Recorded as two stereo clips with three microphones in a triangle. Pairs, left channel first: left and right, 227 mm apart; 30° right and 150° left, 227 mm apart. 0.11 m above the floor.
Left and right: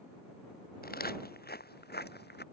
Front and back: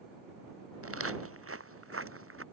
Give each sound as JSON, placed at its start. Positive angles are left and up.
{"t": 0.8, "sound": "footsteps", "azimuth_deg": 140}